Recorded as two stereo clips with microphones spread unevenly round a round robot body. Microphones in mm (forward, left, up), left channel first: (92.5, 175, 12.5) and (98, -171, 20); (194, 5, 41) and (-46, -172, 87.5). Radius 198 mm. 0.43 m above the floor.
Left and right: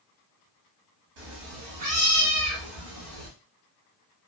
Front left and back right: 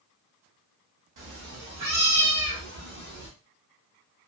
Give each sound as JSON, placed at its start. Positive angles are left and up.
{"t": 1.2, "sound": "a cat meowing", "azimuth_deg": -120, "distance_m": 0.9}